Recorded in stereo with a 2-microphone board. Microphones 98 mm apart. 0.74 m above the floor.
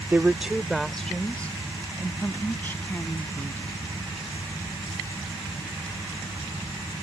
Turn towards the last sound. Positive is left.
turn(degrees=20)  # may be behind; listen again after turning